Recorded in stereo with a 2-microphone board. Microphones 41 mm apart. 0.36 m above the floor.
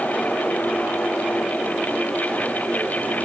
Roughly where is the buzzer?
No buzzer in this recording.